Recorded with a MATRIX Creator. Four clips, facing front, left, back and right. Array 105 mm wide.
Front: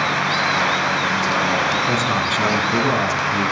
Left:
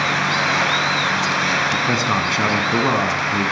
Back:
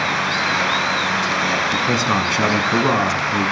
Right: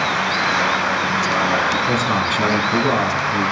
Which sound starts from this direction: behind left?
A man speaking, at 1.7 s.